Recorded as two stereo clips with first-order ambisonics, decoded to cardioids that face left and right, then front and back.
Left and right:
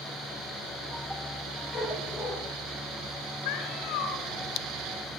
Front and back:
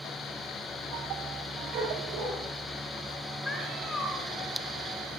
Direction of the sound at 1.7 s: 150° left.